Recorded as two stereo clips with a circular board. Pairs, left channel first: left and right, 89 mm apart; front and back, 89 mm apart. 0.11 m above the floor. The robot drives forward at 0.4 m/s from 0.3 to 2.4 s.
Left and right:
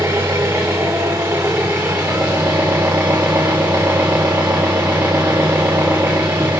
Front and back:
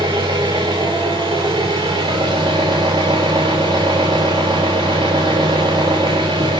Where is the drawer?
I don't hear a drawer.